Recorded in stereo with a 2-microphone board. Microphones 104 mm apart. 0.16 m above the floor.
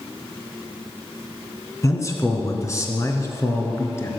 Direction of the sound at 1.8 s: 30° left (ahead or behind).